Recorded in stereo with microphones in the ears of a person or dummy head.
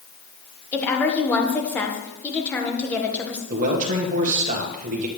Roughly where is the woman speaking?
Centre.